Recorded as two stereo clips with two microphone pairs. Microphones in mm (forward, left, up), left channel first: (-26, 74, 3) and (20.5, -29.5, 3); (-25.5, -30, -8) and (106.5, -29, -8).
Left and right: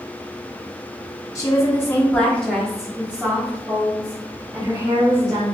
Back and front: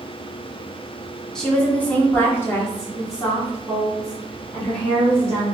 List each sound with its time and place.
1.4 s a woman speaking: 95° left, 1.1 m; by 5.5 s 120° right, 2.0 m